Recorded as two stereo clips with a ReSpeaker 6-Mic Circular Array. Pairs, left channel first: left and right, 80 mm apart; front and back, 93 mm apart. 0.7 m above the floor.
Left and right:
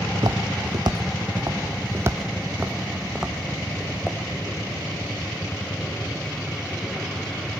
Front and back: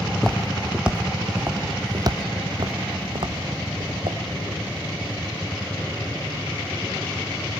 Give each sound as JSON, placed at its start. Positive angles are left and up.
{"t": 0.1, "sound": "footsteps", "azimuth_deg": -85, "distance_m": 1.8}